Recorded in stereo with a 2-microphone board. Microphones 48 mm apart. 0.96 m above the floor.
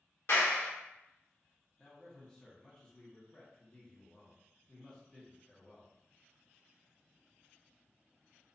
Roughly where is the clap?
Left.